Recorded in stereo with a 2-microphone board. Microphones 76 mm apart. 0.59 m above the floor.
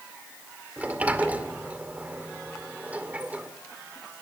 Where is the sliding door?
20° right (ahead or behind), 2 m.